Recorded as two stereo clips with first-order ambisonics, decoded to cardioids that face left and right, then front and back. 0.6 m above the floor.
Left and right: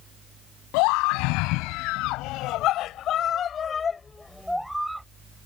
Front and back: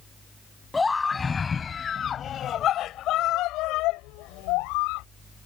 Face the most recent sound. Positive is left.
turn(degrees=-10)